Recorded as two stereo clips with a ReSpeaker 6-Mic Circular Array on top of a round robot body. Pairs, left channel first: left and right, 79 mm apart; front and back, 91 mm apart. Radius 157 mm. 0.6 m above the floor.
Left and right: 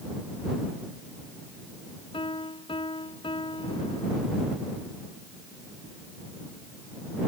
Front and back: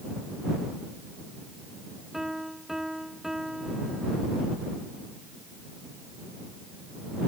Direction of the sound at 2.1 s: 95° left.